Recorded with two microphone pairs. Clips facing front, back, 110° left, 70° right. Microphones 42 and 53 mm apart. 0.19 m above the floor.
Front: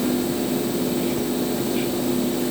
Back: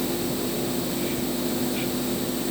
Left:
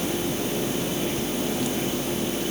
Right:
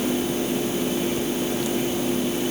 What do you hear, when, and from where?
Only background noise.